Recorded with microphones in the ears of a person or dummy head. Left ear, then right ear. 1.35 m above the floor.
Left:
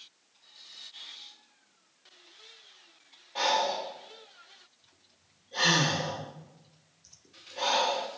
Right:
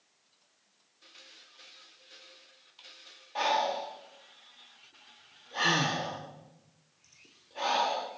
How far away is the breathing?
About 1.7 m.